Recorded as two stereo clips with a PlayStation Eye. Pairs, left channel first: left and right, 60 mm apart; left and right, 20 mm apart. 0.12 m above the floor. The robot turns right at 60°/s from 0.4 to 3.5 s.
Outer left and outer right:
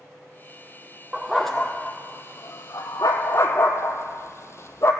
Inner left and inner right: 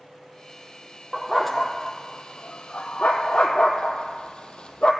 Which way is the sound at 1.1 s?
15° right (ahead or behind).